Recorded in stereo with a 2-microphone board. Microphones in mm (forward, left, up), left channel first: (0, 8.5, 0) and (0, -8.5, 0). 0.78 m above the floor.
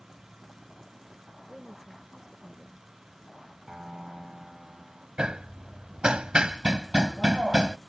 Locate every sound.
1.5 s a woman speaking: 30° right (ahead or behind)
3.7 s a piano: 40° right (ahead or behind)
5.2 s hammering: 65° right (ahead or behind)